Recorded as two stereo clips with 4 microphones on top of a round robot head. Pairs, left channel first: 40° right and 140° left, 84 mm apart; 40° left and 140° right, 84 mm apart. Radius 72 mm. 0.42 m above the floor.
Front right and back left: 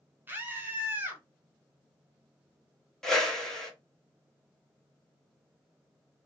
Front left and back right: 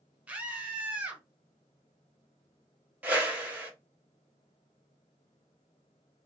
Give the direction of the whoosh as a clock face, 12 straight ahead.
4 o'clock.